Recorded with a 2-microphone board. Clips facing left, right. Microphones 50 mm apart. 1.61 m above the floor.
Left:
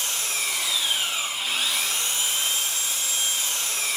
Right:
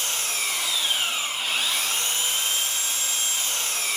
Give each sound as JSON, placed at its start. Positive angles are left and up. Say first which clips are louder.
{"t": 0.0, "sound": "an engine running", "louder": "even", "side_deg": -45, "distance_m": 1.9}